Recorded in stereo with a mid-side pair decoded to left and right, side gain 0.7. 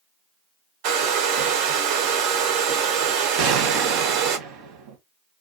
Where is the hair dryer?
65° right, 0.6 m.